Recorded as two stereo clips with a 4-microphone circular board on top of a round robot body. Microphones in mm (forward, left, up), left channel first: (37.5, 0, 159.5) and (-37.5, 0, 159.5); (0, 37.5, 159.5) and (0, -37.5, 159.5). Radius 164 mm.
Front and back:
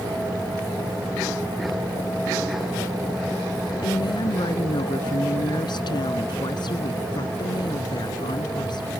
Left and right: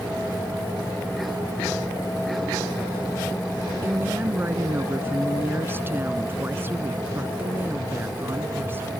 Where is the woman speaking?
25° right.